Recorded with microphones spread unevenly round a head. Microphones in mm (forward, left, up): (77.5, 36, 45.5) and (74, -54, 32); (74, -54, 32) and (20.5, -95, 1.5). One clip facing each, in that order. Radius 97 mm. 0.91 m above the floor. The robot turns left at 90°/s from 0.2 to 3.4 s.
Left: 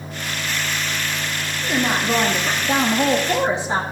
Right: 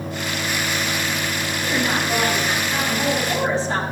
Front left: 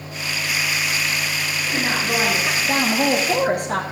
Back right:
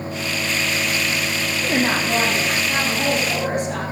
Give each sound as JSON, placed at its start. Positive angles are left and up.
{"t": 1.6, "sound": "a woman speaking", "azimuth_deg": 170, "distance_m": 1.5}